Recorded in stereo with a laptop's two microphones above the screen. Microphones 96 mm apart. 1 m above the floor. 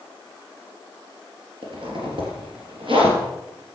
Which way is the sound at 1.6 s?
60° right (ahead or behind).